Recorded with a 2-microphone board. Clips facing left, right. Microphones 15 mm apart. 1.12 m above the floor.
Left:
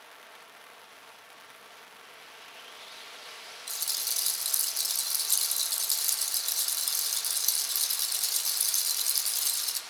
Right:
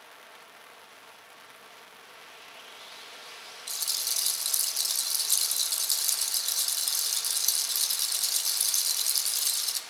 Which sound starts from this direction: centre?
A rattle, at 3.7 s.